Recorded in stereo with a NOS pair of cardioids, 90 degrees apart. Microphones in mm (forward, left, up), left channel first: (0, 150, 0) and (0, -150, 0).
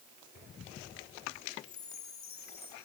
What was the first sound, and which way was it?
A chime, 45° left.